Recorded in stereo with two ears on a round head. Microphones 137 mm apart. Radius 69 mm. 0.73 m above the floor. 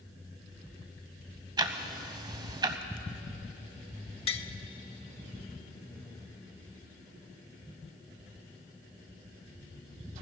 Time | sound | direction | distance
1.6 | ticking | 25° right (ahead or behind) | 0.8 m
4.3 | tapping | 35° left (ahead or behind) | 0.6 m